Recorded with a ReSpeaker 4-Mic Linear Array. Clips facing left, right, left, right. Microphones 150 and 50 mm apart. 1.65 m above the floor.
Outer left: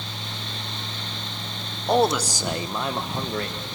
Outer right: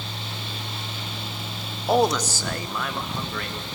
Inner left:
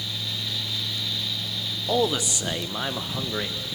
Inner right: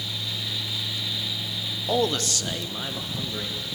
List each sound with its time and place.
1.9 s a man speaking: 5° right (ahead or behind), 0.9 m; by 3.7 s 35° left (ahead or behind), 2 m